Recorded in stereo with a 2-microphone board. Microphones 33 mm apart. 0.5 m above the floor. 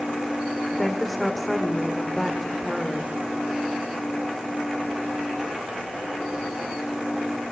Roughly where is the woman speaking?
Centre.